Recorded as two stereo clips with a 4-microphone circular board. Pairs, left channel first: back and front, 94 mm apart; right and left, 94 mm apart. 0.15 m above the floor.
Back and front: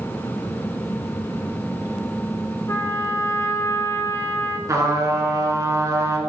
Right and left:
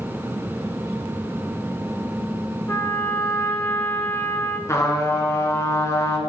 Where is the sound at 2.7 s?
145° right, 0.8 m.